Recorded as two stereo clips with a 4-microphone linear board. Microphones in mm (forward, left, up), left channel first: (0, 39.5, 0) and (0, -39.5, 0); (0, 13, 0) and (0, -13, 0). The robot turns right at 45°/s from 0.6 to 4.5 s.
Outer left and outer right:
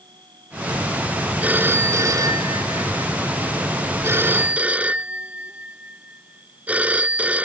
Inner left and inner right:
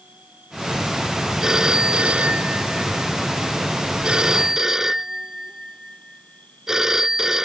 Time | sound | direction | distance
0.0 | an insect | 70° right | ?
1.4 | a phone ringing | 160° right | ?